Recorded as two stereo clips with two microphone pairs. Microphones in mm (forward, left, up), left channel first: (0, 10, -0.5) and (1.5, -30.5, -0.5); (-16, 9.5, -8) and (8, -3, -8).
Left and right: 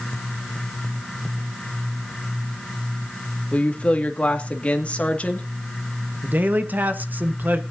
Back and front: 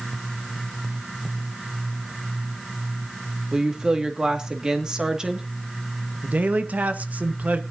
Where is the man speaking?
45° right, 1.4 m.